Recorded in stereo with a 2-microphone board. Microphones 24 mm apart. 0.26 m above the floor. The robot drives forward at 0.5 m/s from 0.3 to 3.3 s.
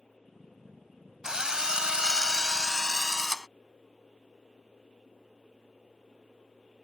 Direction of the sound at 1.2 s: 30° right (ahead or behind).